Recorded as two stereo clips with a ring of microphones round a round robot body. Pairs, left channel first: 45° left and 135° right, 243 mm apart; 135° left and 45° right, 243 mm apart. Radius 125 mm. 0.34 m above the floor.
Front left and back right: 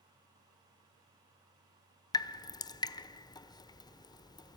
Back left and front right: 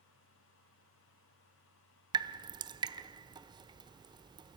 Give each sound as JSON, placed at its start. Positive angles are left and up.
{"t": 2.1, "sound": "dripping", "azimuth_deg": 0, "distance_m": 0.7}